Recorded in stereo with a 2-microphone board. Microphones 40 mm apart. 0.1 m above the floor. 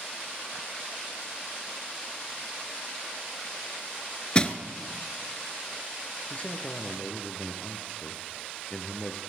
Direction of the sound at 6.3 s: 35° left (ahead or behind).